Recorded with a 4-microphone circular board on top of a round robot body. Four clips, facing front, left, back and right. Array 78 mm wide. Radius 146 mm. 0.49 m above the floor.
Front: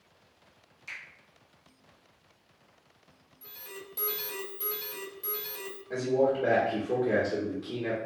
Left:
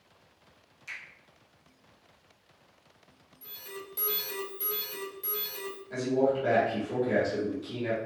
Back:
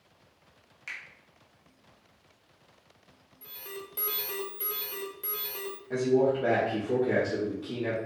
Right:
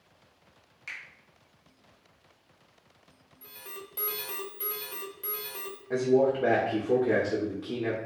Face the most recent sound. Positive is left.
turn(degrees=-95)